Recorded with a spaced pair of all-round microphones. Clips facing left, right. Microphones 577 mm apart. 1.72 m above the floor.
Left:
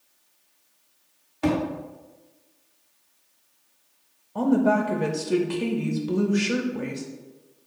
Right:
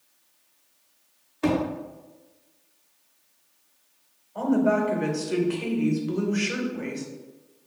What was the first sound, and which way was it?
A thud, 15° left (ahead or behind).